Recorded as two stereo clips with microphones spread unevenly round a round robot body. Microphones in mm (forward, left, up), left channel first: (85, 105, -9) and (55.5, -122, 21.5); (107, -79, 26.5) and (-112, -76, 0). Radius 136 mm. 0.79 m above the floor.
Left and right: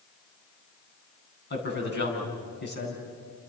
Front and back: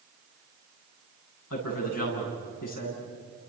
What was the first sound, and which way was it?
A man speaking, 40° left.